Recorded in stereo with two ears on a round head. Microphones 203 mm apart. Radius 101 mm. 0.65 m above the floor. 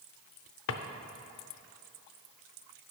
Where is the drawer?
60° left (ahead or behind), 0.6 m.